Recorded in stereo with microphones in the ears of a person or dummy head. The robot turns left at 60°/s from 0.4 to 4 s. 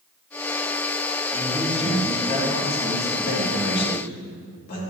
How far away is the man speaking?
About 3 m.